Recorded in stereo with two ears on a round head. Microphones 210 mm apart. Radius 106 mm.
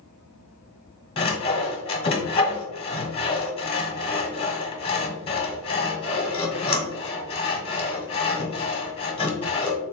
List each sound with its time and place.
1.2 s sawing: 25° left (ahead or behind), 1.0 m